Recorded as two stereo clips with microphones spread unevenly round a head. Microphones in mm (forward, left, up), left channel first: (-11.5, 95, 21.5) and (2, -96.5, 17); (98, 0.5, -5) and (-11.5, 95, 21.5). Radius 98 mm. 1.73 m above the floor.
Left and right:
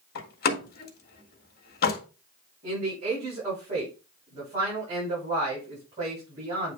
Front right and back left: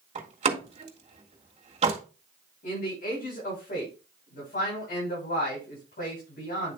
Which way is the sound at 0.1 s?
120° left.